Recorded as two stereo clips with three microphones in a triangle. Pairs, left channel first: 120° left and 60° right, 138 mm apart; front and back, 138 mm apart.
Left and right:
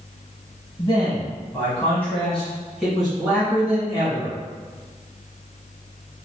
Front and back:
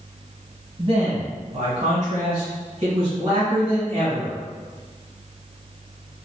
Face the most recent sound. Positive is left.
turn(degrees=-135)